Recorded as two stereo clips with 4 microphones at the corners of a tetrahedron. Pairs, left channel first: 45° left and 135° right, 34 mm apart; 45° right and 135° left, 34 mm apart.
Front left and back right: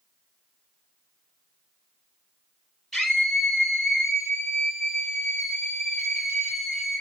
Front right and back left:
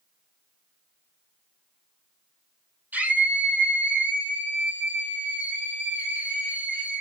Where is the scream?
130° left, 3.5 m.